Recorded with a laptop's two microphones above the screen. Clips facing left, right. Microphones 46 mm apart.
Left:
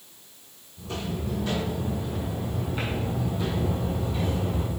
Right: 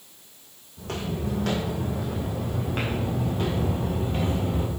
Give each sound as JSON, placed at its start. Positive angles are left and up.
{"t": 0.8, "sound": "footsteps", "side_deg": -65, "distance_m": 3.0}